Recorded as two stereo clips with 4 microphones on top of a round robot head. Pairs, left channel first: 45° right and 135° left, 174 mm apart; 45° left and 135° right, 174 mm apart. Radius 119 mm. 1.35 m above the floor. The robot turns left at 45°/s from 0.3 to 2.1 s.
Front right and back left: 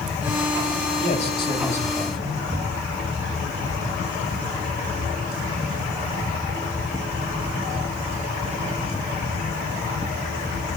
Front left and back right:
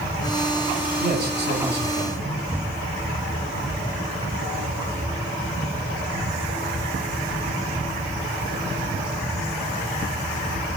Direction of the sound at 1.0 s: 90° right.